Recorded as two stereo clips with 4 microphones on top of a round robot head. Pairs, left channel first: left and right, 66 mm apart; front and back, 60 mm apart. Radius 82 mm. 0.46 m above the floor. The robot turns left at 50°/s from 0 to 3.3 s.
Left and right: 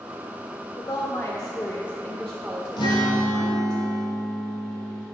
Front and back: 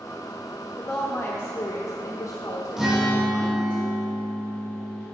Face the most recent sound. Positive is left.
turn(degrees=75)